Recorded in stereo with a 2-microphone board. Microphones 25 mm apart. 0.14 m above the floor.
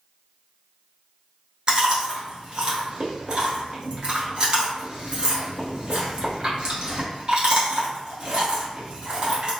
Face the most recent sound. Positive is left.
turn(degrees=-30)  # may be behind; listen again after turning